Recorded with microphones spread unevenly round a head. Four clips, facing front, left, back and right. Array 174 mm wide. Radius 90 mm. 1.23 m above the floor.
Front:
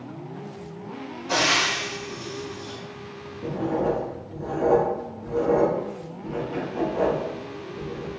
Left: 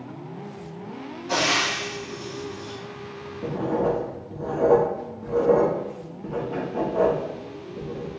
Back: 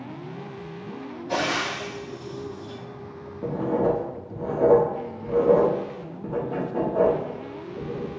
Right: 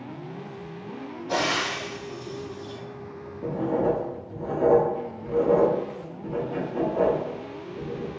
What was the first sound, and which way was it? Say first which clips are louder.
Frying: left 2 dB, front 2 dB; 105° left.